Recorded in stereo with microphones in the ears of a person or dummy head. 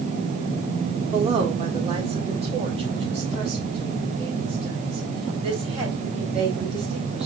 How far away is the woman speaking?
About 1.6 m.